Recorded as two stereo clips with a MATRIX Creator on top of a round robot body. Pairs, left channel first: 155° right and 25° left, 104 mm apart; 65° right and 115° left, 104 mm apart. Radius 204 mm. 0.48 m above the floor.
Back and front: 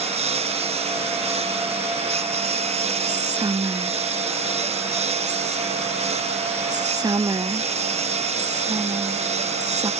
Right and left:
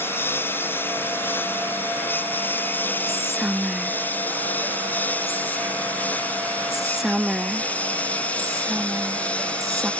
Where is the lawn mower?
5° left; by 10.0 s 10° left.